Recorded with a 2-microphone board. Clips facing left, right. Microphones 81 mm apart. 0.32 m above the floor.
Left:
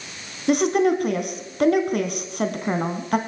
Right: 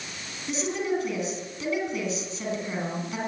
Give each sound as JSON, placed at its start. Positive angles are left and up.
{"t": 0.5, "sound": "a woman speaking", "side_deg": 60, "distance_m": 3.5}